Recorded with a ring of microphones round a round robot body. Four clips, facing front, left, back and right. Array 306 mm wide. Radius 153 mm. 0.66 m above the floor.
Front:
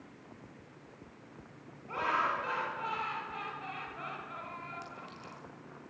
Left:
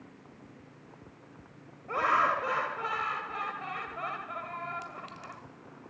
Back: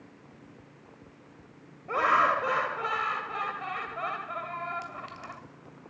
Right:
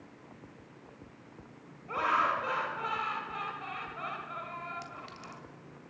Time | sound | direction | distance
1.9 | laughter | 160° left | 2.5 m
4.8 | a clink | 165° right | 2 m